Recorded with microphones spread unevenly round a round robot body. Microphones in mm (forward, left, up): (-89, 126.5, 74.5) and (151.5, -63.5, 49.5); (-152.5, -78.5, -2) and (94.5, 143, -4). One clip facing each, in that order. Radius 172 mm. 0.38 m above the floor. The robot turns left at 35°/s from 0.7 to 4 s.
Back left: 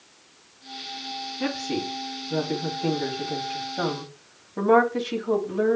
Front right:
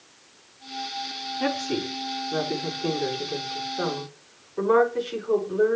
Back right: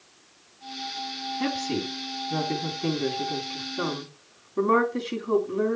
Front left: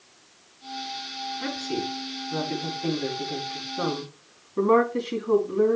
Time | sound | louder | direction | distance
1.4 | a woman speaking | front right 1 dB, back right 2 dB | 140° right | 3 m